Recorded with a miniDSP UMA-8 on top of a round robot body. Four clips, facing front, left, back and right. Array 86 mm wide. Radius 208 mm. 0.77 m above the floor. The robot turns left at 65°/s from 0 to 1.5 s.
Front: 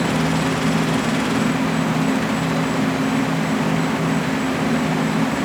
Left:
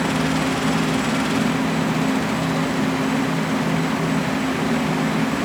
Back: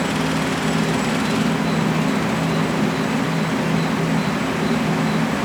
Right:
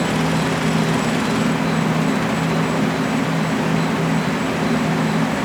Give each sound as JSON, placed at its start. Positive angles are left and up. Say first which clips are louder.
{"t": 0.0, "sound": "an insect", "louder": "right 1 dB, front 1 dB", "azimuth_deg": -55, "distance_m": 6.0}